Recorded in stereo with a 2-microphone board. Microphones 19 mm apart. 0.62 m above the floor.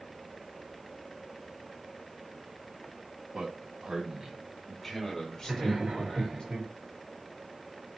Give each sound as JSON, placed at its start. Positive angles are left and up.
{"t": 3.3, "sound": "a man speaking", "side_deg": -55, "distance_m": 1.4}
{"t": 5.4, "sound": "laughter", "side_deg": -55, "distance_m": 1.5}